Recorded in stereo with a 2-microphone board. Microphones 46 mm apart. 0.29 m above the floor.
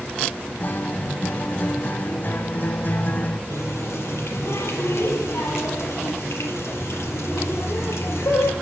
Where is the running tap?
80° left, 5.5 m.